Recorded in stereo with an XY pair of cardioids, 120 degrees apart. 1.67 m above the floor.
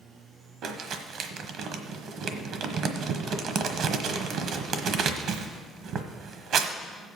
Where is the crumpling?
65° right, 1.2 m.